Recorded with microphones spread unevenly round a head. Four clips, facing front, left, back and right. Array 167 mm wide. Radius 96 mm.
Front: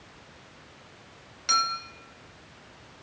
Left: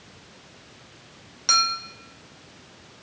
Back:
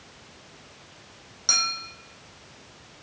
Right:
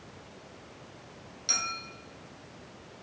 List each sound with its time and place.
1.5 s a clink: 105° left, 1.7 m